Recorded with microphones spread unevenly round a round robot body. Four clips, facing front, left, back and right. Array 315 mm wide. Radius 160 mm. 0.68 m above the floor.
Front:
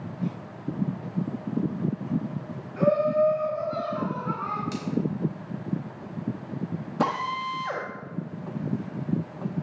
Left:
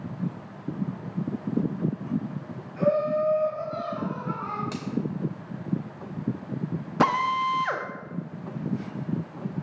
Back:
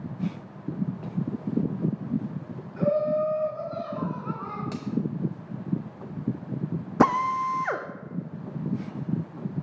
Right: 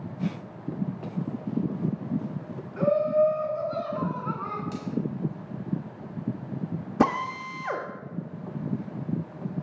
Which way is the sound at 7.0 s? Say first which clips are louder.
Left 3 dB, back 5 dB; 150° right.